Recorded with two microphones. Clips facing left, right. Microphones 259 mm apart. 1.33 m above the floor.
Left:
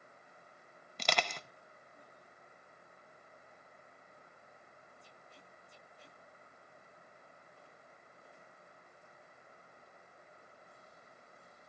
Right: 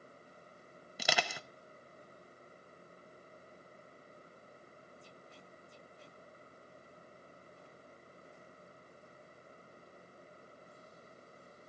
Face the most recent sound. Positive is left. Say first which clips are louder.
# even
turn(degrees=-10)  # may be behind; listen again after turning